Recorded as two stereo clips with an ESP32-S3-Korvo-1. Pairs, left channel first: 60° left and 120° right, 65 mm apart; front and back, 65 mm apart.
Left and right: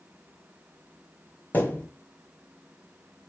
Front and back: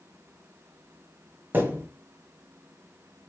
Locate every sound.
1.5 s a thud: 120° left, 1.2 m